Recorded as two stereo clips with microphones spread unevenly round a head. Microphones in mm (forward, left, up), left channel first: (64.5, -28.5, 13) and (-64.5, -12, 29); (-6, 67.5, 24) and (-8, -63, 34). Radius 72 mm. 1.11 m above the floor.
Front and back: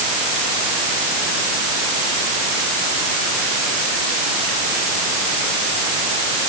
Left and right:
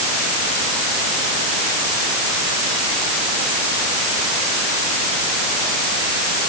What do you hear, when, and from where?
Only background noise.